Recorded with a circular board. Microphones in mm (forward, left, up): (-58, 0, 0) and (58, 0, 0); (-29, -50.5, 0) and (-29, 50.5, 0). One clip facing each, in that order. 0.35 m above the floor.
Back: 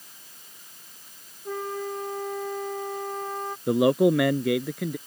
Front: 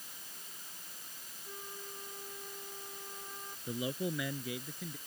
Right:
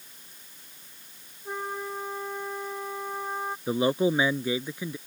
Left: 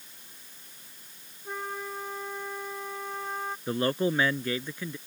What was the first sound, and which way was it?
A flute, 165° right.